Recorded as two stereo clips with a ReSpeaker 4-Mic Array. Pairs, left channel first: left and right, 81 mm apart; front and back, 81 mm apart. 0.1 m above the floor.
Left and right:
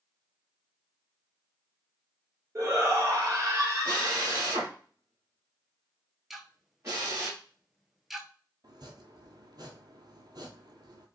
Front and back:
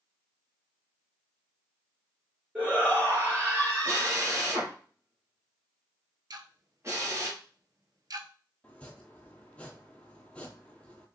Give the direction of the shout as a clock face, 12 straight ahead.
4 o'clock.